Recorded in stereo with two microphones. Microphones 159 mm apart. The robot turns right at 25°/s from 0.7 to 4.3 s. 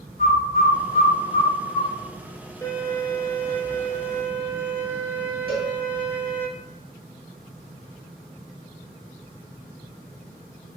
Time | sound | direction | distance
0.2 | a bird | centre (ahead or behind) | 0.8 m
2.6 | a violin | 25° left (ahead or behind) | 0.6 m
5.5 | a cowbell | centre (ahead or behind) | 1.3 m